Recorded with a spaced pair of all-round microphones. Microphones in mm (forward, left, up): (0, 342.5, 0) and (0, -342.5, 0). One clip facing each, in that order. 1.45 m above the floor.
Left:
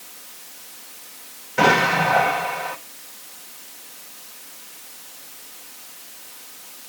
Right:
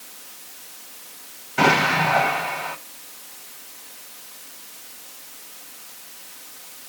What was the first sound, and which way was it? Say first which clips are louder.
An explosion: left 1 dB; 10° left (ahead or behind).